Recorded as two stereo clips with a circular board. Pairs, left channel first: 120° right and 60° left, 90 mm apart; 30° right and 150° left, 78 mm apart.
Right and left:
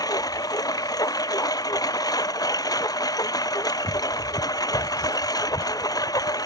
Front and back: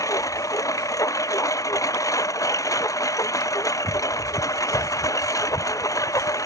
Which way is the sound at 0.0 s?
75° right.